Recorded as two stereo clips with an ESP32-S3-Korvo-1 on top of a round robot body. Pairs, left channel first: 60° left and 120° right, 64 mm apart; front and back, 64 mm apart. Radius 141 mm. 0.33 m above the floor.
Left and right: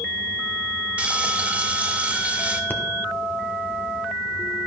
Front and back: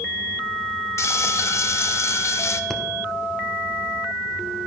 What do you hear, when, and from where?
1.0 s frying: 50° right, 0.6 m
2.7 s breathing: 85° left, 1.5 m